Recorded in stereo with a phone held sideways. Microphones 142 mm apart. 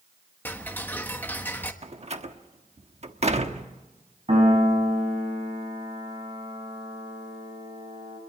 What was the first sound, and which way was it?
Ticking, 15° left (ahead or behind).